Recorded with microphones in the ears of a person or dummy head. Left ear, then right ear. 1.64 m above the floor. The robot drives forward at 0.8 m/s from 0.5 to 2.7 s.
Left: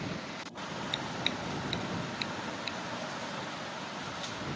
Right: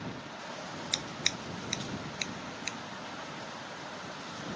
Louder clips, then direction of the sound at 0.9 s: Right 2 dB; 45° right (ahead or behind).